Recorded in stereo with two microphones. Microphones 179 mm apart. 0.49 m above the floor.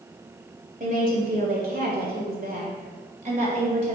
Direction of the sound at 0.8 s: 50° right (ahead or behind).